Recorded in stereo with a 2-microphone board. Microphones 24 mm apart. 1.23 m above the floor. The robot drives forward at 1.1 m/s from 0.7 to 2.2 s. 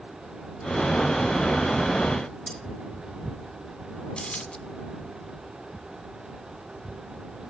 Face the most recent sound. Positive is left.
turn(degrees=60)  # may be behind; listen again after turning